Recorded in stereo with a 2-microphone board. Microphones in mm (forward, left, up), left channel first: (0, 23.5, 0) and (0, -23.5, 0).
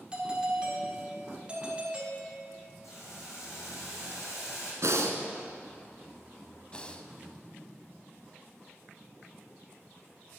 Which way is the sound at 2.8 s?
80° left.